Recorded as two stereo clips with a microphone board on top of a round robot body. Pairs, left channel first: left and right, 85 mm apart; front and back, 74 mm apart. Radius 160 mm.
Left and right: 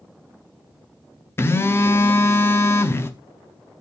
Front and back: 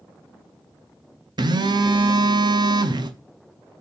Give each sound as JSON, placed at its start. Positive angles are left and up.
{"t": 1.4, "sound": "a phone buzzing", "azimuth_deg": 155, "distance_m": 0.8}